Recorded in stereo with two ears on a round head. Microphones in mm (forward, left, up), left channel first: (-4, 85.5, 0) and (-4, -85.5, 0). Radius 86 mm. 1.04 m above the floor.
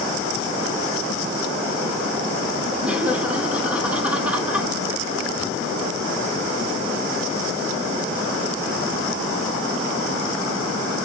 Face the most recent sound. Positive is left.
turn(degrees=-5)  # may be behind; listen again after turning